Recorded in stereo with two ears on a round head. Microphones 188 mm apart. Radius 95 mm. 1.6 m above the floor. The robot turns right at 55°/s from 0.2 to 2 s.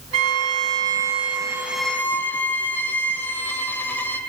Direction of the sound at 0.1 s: 90° right.